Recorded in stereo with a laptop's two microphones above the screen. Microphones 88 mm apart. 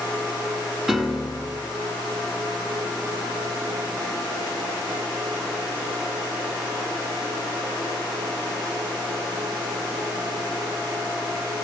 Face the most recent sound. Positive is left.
turn(degrees=-5)  # may be behind; listen again after turning